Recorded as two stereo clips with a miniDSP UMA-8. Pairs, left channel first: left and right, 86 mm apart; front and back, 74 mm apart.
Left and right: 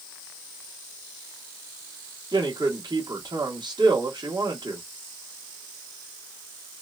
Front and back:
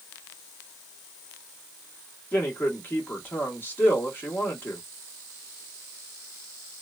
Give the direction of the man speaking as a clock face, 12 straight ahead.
2 o'clock.